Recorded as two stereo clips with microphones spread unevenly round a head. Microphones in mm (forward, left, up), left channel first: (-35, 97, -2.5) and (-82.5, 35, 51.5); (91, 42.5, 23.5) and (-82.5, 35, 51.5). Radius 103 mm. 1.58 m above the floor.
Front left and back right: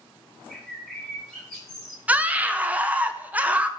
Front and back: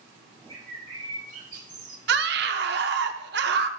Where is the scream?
165° right, 0.7 m.